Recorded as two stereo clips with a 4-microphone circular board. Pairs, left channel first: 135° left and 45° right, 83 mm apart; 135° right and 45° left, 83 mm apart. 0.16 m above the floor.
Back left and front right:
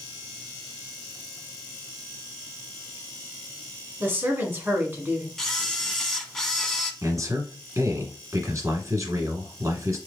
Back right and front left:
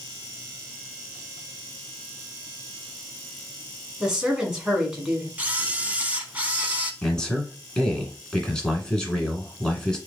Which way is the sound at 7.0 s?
60° right.